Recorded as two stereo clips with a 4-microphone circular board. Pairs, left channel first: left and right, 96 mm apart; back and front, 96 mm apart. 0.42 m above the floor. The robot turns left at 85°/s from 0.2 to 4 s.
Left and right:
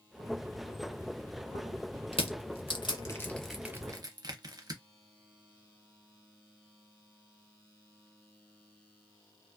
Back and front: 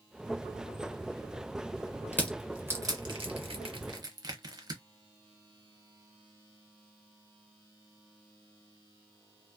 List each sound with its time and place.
2.1 s crushing: 115° left, 0.7 m; by 4.8 s 45° right, 0.7 m